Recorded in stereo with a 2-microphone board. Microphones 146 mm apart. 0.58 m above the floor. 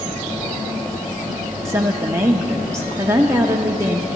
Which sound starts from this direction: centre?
A woman speaking, at 1.6 s.